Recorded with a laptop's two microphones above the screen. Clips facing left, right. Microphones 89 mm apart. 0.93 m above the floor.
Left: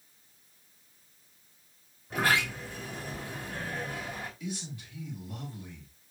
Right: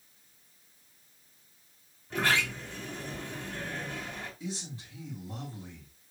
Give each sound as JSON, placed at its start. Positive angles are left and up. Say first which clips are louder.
{"t": 2.1, "sound": "a sliding door", "louder": "left 1 dB", "side_deg": 10, "distance_m": 1.8}
{"t": 4.4, "sound": "a man speaking", "louder": "left 1 dB", "side_deg": -30, "distance_m": 4.0}